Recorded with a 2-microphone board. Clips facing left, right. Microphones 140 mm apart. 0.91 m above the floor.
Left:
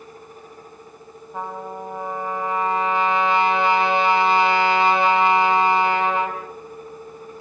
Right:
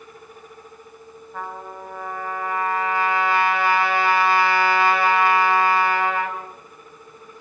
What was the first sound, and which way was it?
A trumpet, 20° left (ahead or behind).